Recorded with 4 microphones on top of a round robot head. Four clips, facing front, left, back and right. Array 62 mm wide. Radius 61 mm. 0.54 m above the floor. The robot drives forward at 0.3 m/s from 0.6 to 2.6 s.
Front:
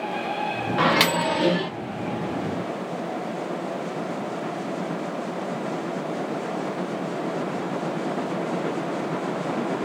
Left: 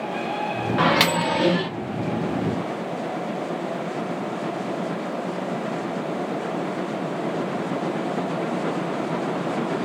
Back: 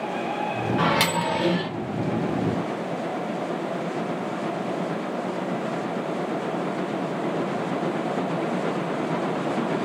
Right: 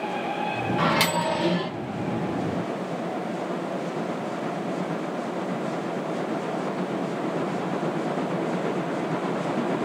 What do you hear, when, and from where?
0.8 s a microwave: 45° left, 0.7 m; by 1.7 s 80° left, 0.6 m